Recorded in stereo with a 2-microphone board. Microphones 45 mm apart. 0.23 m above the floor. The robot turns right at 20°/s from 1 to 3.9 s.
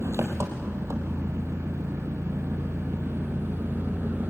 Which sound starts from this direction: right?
An engine running, at 0.0 s.